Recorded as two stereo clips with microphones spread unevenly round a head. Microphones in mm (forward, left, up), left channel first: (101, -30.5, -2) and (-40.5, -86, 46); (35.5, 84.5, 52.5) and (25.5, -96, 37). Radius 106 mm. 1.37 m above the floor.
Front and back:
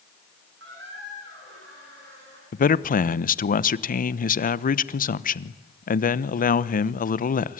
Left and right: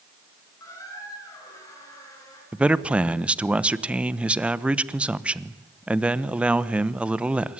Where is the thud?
No thud in this recording.